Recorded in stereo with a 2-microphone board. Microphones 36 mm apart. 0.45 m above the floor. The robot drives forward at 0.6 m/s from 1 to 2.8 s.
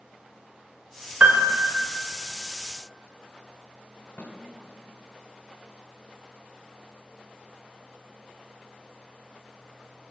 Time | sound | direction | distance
1.2 | a piano | 40° right (ahead or behind) | 1.3 m
4.2 | a snare drum | 50° left (ahead or behind) | 1.7 m